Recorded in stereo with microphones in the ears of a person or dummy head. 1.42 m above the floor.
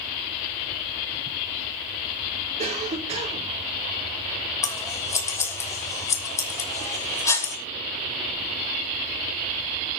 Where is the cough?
25° right (ahead or behind), 4 m.